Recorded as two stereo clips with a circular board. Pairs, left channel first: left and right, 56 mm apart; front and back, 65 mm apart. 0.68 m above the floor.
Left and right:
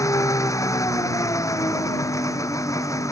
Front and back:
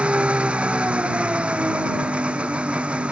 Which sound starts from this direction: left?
An engine running, at 0.0 s.